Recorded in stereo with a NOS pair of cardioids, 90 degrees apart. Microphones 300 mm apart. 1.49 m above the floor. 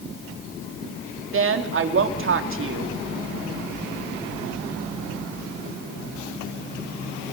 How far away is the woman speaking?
About 3 m.